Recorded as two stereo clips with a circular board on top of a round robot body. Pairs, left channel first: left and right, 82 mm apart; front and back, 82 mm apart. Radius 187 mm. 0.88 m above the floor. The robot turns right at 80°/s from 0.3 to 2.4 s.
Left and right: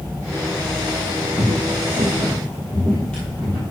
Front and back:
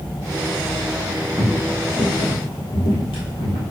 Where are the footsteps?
165° right, 0.9 m; by 3.6 s 15° left, 2 m.